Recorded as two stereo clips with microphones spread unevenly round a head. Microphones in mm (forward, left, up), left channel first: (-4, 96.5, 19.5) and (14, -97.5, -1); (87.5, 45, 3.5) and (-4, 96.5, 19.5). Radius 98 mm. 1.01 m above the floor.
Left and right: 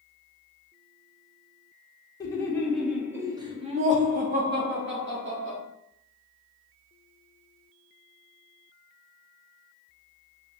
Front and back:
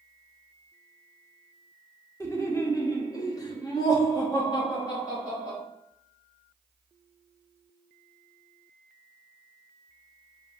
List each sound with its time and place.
2.2 s laughter: 20° left, 0.9 m; by 5.6 s 90° right, 1.4 m